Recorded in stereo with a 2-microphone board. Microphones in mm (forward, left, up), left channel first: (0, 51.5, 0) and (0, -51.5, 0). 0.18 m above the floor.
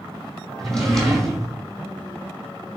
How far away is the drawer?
About 1.9 m.